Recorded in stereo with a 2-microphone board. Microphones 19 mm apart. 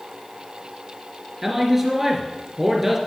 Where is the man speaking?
15° right (ahead or behind), 2.5 m.